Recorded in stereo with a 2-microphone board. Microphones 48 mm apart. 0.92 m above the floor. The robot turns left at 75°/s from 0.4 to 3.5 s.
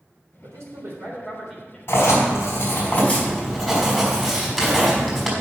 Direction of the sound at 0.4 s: 90° right.